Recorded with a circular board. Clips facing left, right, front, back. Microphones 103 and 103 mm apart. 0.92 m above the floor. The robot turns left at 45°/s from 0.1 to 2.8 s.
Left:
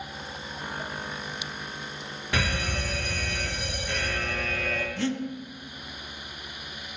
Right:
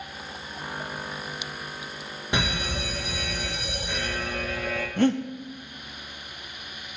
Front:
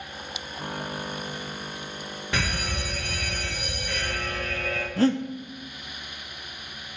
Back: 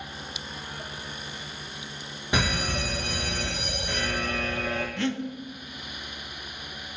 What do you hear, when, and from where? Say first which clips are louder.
2.3 s a fire alarm: right 1 dB, back 3 dB; 125° right, 1.4 m; by 4.9 s 150° right, 1.4 m
5.0 s breathing: right 9 dB, front 10 dB; 50° right, 0.6 m